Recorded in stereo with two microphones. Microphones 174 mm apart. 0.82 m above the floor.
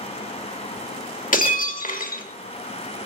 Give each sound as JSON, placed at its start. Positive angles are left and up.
{"t": 1.3, "sound": "breaking glass", "side_deg": 50, "distance_m": 0.8}